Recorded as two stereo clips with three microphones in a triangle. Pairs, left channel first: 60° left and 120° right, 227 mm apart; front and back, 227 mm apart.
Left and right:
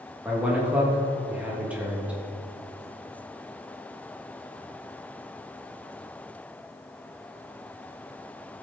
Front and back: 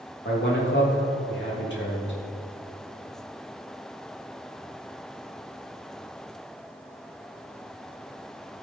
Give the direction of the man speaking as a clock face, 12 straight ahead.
1 o'clock.